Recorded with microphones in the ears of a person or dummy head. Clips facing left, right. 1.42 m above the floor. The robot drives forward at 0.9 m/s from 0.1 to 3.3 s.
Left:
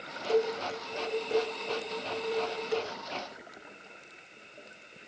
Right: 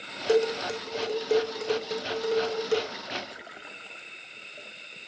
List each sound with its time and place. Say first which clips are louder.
0.3 s dishes clattering: right 4 dB; 75° right (ahead or behind), 4 m; by 2.8 s 50° right (ahead or behind), 5 m